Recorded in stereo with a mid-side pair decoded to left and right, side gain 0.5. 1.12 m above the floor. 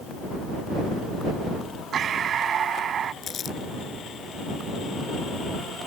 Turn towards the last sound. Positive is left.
turn(degrees=50)